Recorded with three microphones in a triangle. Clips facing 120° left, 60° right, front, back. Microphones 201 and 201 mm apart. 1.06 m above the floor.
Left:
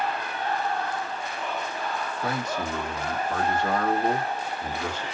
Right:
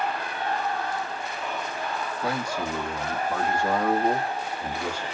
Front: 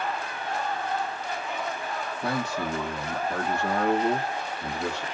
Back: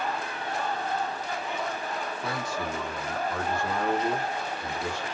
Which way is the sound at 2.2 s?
20° left.